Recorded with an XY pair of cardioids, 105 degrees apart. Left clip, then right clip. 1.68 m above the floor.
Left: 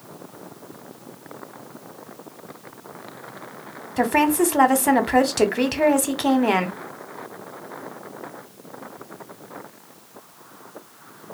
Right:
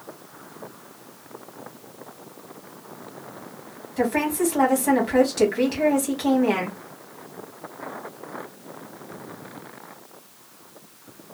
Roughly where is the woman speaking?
Ahead left.